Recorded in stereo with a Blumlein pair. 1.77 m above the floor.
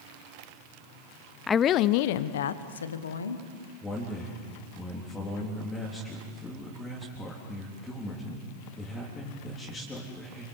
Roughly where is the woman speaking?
Ahead.